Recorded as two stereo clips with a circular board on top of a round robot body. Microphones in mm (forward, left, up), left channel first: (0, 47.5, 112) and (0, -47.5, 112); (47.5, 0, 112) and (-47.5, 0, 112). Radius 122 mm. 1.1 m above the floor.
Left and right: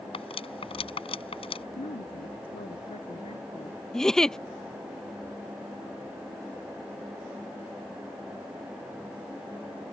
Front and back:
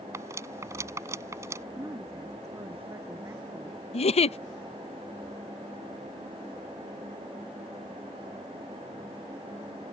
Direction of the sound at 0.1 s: 120° left.